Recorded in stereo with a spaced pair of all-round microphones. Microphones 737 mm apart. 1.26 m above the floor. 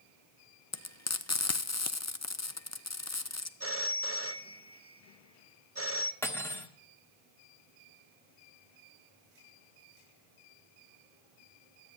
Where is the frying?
25° left (ahead or behind), 0.5 m.